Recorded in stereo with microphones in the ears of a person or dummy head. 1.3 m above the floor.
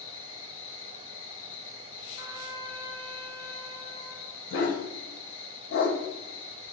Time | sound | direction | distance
0.0 | an insect | 65° left (ahead or behind) | 1.1 m
2.2 | a trumpet | 25° right (ahead or behind) | 0.8 m
4.5 | a dog barking | 75° left (ahead or behind) | 3 m